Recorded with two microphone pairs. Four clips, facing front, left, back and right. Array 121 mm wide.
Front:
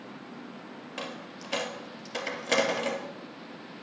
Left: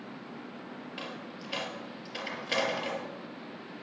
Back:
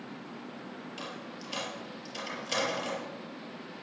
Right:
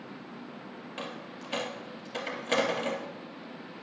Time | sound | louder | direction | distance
1.0 | a dropped coin | right 1 dB, front 2 dB | 25° right | 2 m